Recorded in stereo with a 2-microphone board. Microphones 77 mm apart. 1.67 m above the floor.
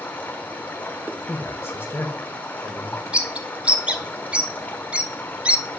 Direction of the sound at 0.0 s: 25° left (ahead or behind).